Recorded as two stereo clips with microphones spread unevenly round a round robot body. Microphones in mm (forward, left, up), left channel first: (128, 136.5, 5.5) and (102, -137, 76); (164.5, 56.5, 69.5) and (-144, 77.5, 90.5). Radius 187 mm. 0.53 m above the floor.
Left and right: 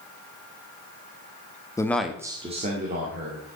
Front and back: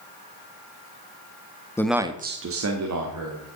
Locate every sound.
1.8 s a man speaking: 60° left, 1.0 m; by 3.5 s 160° right, 2 m